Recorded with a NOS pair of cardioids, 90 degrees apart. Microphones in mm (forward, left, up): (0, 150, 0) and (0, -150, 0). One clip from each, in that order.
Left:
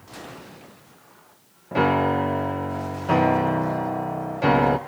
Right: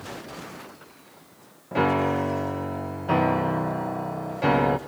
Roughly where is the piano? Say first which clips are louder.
Left 2 dB; ahead.